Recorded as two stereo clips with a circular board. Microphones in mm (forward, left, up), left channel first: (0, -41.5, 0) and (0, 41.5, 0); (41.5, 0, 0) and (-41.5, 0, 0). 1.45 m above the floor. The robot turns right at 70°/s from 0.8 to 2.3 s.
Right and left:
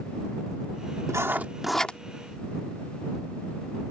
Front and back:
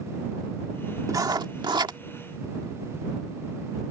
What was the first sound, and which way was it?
Writing, 135° left.